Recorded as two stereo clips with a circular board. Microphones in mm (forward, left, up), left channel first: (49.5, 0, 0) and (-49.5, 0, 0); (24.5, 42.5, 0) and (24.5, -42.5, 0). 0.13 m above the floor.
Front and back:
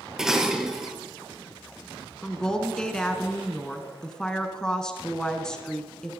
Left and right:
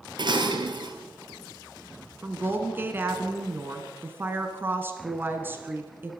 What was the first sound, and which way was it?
Dishes clattering, 95° right.